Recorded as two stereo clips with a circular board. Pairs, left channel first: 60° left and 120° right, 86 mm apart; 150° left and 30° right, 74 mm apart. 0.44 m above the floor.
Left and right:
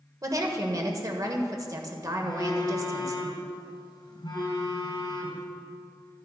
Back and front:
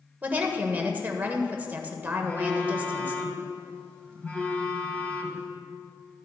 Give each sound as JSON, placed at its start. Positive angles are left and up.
{"t": 0.2, "sound": "a woman speaking", "azimuth_deg": -90, "distance_m": 1.5}
{"t": 2.2, "sound": "a phone buzzing", "azimuth_deg": 80, "distance_m": 2.5}